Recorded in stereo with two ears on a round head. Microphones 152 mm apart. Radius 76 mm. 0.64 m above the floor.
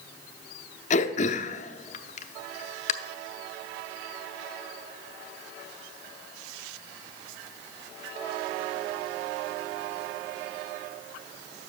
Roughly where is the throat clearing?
Left.